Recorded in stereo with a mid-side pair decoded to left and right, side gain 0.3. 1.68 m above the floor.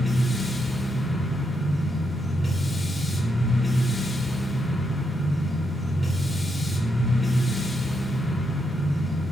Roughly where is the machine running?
Ahead.